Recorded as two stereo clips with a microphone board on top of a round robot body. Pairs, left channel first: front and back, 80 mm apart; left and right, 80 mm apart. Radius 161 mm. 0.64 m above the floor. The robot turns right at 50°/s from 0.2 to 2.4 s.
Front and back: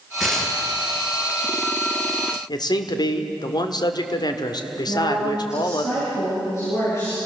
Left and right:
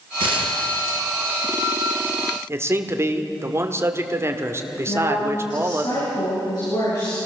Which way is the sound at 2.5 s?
30° right.